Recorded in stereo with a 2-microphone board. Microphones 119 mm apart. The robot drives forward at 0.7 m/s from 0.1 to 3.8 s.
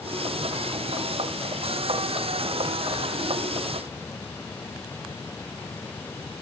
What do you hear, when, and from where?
Only background noise.